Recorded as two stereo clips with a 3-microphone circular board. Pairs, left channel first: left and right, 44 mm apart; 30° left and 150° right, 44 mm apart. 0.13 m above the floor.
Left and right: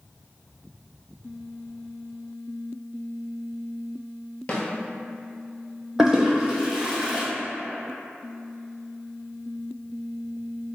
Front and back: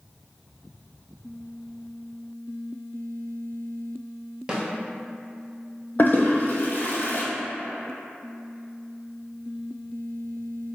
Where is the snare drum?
150° left, 0.8 m.